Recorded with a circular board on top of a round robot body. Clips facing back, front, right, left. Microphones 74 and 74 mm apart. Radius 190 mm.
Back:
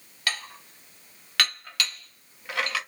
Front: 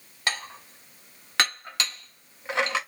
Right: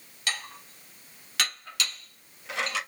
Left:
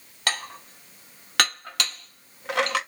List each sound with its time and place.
0.3 s dishes clattering: 60° left, 1.3 m